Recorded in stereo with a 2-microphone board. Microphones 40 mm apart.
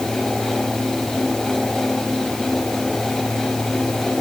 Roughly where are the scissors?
No scissors in this recording.